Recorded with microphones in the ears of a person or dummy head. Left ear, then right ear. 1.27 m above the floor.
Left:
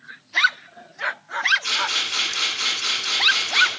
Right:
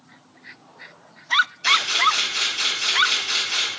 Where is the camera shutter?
75° right (ahead or behind), 1.9 m.